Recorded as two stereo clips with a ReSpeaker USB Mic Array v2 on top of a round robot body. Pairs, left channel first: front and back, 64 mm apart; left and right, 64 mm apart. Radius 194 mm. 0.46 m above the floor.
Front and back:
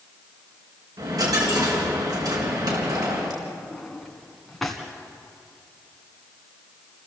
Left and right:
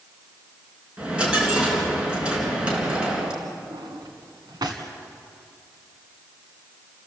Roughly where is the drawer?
Right.